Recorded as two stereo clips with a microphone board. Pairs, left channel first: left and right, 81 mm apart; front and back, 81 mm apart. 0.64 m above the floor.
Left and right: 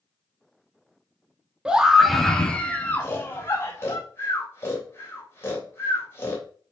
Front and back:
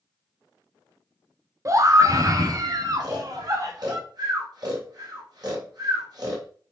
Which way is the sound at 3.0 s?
150° left.